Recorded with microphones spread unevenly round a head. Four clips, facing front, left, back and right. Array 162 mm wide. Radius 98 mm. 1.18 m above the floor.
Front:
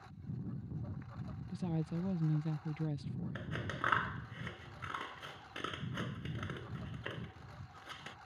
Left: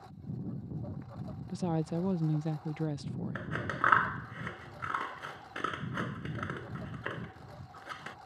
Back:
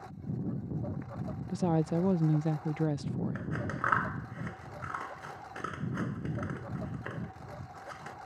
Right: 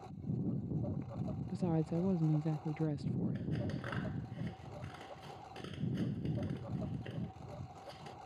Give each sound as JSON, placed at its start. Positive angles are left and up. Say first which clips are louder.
{"t": 0.0, "sound": "a lawn mower", "louder": "right 2 dB, back 9 dB", "azimuth_deg": -150}
{"t": 1.5, "sound": "a woman speaking", "louder": "left 3 dB, back 10 dB", "azimuth_deg": 170}
{"t": 3.4, "sound": "scissors", "louder": "left 5 dB, back 6 dB", "azimuth_deg": 85}